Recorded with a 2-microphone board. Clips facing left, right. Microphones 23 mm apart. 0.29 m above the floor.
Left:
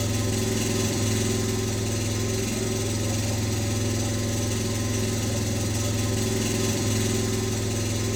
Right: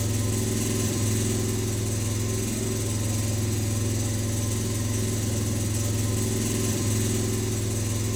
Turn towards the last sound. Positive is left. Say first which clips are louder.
# left 2 dB
turn(degrees=20)  # may be behind; listen again after turning